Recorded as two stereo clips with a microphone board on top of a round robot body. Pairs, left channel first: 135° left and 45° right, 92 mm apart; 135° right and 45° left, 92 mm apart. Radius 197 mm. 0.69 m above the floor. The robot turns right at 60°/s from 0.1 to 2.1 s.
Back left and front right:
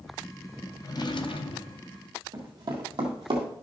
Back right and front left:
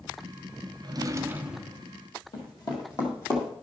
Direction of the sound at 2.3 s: 90° right.